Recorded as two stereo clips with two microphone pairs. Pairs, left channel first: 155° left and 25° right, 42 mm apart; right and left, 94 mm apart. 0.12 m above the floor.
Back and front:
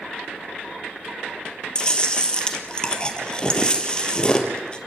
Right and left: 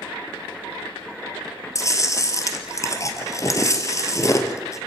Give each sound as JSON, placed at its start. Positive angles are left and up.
{"t": 1.8, "sound": "chewing", "azimuth_deg": -140, "distance_m": 3.0}